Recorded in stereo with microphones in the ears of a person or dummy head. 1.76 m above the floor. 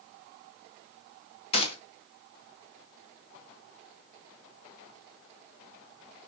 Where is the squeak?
No squeak in this recording.